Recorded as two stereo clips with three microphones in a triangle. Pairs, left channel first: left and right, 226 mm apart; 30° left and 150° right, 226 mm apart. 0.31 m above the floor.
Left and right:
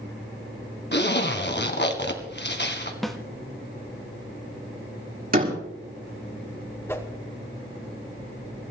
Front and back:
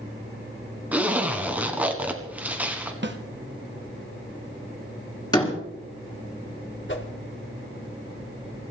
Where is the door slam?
40° right, 5 m.